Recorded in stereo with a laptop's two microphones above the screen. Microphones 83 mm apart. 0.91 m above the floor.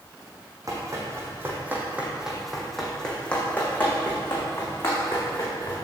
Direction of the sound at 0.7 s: 45° right (ahead or behind).